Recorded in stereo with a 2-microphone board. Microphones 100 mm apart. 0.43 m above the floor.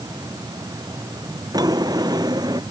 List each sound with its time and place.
1.5 s a drawer: 40° right (ahead or behind)